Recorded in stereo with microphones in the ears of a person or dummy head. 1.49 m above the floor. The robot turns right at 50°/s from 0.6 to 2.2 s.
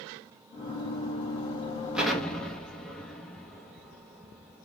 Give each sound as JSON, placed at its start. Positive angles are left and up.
{"t": 1.9, "sound": "an explosion", "side_deg": -5, "distance_m": 0.6}